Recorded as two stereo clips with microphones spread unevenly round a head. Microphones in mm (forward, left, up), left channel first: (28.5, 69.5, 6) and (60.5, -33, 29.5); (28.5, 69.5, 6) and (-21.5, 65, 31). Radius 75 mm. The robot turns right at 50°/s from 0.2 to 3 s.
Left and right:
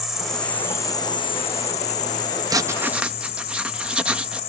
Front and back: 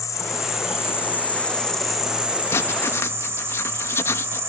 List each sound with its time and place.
0.0 s an insect: 15° left; by 4.5 s 155° left
2.5 s writing: 15° right; by 4.4 s 10° left